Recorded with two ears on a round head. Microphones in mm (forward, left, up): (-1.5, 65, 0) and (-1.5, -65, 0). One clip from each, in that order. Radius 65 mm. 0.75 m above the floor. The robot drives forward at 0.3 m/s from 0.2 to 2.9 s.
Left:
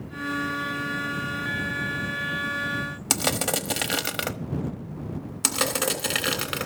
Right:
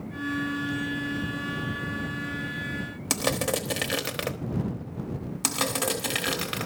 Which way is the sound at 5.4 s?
10° left (ahead or behind).